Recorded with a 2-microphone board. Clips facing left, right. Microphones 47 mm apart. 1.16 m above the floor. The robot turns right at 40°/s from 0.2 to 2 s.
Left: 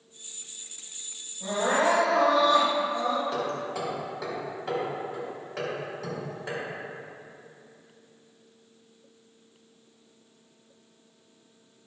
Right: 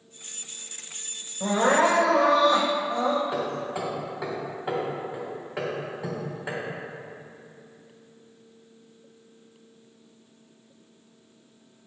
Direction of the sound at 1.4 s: 75° right (ahead or behind).